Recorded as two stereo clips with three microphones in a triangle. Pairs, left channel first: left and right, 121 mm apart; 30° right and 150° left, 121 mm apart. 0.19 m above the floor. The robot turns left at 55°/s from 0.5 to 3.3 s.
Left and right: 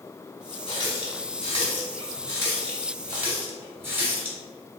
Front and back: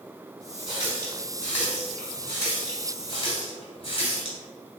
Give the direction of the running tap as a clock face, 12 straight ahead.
8 o'clock.